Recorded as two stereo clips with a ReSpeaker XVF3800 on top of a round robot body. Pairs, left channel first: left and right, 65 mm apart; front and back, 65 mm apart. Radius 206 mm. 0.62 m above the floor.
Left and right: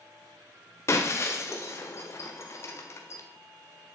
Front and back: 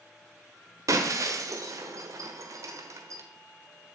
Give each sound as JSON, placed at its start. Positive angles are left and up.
{"t": 0.9, "sound": "breaking glass", "azimuth_deg": 140, "distance_m": 1.5}